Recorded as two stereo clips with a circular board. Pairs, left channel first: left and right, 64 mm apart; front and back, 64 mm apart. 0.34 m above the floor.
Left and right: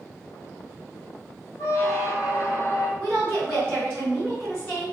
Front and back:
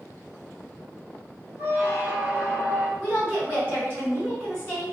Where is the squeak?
125° left, 0.8 m.